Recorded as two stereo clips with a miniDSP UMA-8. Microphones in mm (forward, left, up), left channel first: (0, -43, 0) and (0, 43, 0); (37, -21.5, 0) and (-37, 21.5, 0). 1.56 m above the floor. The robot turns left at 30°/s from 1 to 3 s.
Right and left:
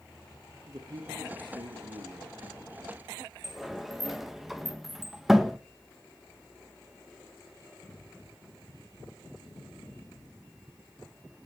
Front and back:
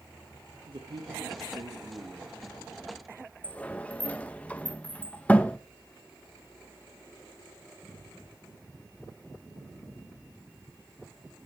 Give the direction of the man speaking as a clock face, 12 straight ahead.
8 o'clock.